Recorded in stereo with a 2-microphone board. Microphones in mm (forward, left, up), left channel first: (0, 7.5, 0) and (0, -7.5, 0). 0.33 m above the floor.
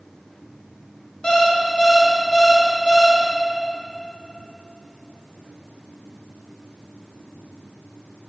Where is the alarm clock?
70° left (ahead or behind), 1.9 m.